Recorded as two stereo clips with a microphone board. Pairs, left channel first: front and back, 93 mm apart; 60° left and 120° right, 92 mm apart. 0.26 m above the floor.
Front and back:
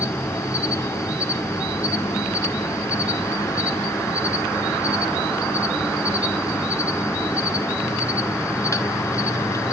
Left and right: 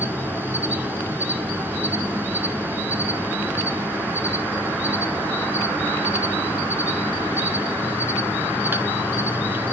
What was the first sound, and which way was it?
An insect, 50° right.